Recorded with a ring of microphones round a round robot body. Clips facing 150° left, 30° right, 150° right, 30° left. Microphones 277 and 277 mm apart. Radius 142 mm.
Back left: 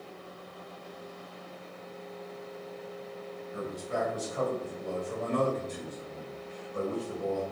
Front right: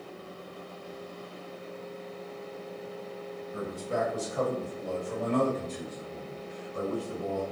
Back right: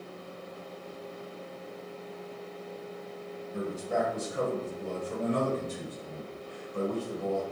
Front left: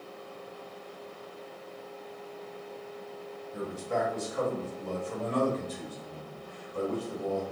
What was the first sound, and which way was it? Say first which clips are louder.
A man speaking: front right 2 dB, back right 1 dB; 60° right.